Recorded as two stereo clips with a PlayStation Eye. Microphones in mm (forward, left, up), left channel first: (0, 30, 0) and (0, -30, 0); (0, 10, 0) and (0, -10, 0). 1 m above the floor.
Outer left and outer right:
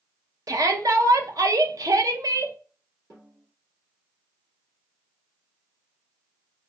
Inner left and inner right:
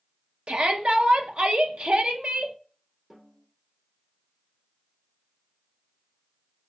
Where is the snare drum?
55° right (ahead or behind), 1.7 m.